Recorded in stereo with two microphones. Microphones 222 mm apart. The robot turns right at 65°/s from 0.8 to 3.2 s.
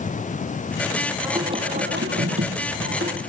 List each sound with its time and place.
1.2 s singing: 175° right, 2 m; by 3.2 s 50° right, 2 m